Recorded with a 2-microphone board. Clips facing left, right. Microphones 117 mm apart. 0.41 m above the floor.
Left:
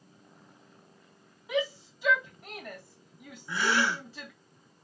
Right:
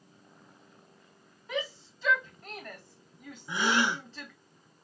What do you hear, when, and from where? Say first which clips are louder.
1.5 s a shout: left 5 dB; 10° left (ahead or behind), 1.9 m
3.5 s a gasp: even; 20° right (ahead or behind), 0.5 m